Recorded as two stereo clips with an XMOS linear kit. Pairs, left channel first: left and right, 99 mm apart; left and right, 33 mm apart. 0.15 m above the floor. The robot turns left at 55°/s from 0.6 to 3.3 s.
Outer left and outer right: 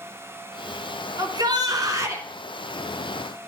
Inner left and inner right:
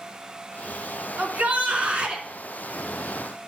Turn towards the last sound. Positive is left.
turn(degrees=165)